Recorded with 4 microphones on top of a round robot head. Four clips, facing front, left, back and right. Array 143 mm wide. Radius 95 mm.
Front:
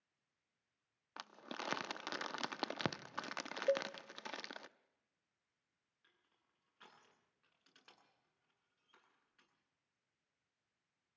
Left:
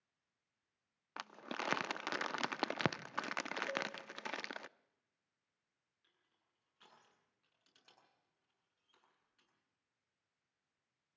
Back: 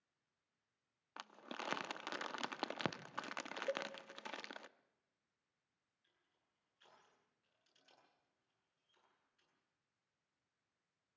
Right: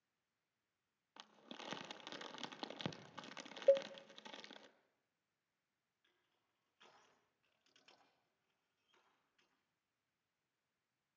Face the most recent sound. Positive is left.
turn(degrees=20)